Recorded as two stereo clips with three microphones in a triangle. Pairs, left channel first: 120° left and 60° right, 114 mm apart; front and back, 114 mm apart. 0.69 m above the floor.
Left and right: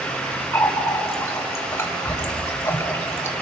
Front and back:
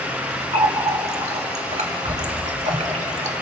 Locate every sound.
0.5 s a running tap: 175° right, 1.8 m